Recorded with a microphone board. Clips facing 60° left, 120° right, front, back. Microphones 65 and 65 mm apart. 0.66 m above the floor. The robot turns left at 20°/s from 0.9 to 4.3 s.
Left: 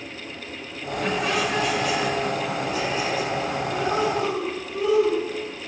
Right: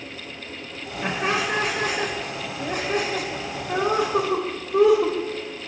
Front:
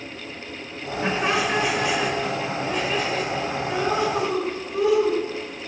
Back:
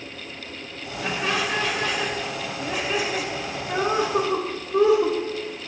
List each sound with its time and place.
1.0 s laughter: 60° right, 3 m; by 5.2 s 125° right, 3 m